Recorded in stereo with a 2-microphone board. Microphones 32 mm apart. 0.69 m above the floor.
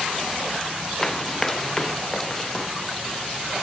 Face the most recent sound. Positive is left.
turn(degrees=10)  # may be behind; listen again after turning